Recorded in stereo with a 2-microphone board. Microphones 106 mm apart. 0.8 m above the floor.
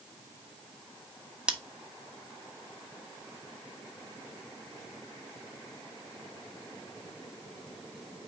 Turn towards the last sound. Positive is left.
turn(degrees=-10)  # may be behind; listen again after turning